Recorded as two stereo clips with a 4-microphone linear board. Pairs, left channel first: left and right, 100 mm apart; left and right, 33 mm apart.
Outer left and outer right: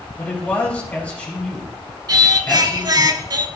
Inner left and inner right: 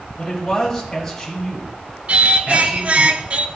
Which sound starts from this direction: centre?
A man speaking, at 0.2 s.